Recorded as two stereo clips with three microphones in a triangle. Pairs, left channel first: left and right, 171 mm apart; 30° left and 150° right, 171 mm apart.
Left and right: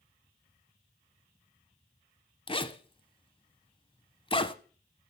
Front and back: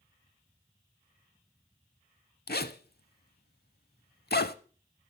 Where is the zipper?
35° left, 0.6 m.